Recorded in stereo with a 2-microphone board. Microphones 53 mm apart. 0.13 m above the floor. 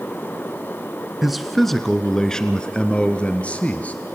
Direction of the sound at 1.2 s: 5° right (ahead or behind).